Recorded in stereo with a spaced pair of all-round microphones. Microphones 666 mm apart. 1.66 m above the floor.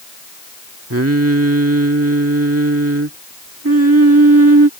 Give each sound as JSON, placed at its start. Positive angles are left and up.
{"t": 0.9, "sound": "singing", "side_deg": -20}